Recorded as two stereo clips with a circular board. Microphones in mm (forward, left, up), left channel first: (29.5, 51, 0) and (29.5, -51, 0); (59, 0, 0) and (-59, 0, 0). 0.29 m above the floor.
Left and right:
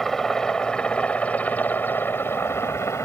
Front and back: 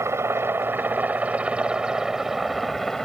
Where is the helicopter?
170° left; by 3.1 s 80° left.